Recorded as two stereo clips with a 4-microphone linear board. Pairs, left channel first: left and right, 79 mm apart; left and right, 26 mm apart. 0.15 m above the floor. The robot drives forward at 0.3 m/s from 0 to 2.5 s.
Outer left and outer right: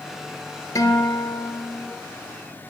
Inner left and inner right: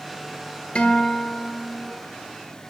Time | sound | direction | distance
0.8 | a guitar | 45° left (ahead or behind) | 1.2 m